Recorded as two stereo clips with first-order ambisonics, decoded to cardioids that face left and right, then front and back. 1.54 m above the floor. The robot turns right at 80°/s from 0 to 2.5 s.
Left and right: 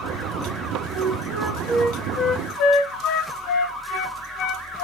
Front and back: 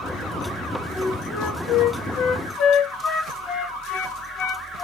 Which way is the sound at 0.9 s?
75° right.